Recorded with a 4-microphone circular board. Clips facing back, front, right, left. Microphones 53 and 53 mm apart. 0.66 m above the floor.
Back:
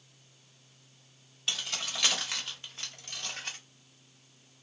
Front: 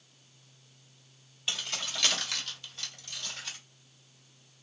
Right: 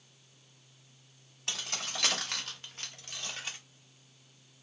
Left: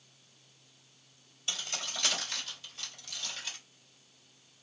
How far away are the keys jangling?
About 1.1 m.